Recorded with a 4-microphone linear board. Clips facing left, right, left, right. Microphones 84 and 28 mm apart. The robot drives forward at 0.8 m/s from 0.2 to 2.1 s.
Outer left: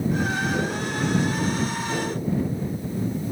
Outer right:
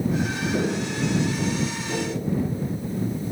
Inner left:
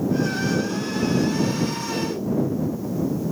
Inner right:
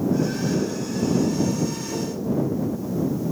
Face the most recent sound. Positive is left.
turn(degrees=10)  # may be behind; listen again after turning